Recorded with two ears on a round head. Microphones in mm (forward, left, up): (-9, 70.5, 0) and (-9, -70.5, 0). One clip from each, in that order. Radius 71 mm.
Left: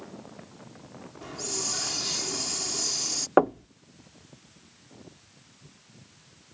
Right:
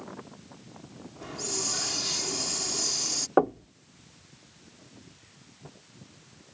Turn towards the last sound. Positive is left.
turn(degrees=30)  # may be behind; listen again after turning